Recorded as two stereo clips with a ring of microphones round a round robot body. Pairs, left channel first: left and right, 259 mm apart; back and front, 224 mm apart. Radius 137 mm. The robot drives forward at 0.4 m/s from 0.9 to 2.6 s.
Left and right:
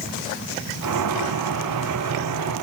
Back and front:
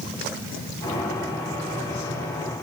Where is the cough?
I don't hear a cough.